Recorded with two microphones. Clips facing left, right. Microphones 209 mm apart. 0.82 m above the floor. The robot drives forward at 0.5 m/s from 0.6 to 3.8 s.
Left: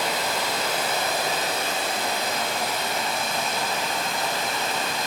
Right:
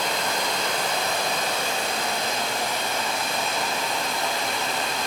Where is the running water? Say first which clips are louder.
Even; 5° left (ahead or behind), 1.9 m.